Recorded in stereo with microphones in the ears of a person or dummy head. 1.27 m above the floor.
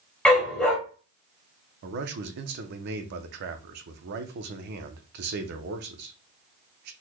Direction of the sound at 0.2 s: 5° left (ahead or behind).